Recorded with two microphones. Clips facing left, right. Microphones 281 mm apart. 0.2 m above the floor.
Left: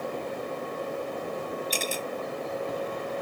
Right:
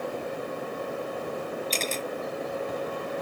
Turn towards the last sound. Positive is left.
turn(degrees=10)  # may be behind; listen again after turning